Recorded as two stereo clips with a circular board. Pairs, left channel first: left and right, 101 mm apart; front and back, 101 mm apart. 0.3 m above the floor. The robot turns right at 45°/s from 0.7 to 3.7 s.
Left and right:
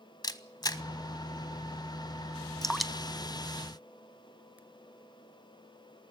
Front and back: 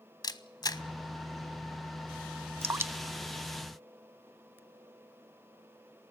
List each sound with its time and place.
0.2 s a camera shutter: 45° left, 0.6 m; by 0.8 s 50° left, 0.6 m
2.6 s dripping: 170° left, 0.7 m; by 4.6 s 140° right, 0.7 m